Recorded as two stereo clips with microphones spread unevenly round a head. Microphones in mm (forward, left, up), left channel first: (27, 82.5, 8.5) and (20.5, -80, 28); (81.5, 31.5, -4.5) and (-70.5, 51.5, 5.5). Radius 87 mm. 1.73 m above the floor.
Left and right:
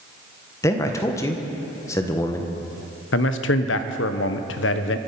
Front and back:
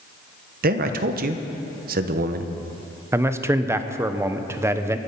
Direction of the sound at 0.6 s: 165° left.